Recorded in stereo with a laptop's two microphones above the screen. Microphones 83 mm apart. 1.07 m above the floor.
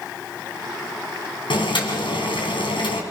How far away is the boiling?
About 3.5 m.